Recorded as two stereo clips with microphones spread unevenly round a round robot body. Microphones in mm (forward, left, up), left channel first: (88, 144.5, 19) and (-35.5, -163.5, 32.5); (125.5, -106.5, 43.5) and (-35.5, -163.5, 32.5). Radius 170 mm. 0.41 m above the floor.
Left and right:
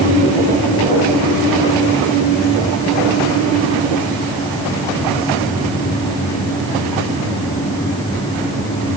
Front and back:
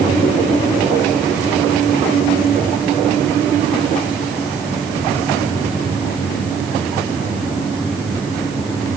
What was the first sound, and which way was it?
Only background noise.